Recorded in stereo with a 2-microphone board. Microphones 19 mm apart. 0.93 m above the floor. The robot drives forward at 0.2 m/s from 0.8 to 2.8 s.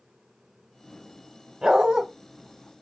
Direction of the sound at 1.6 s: 65° right (ahead or behind).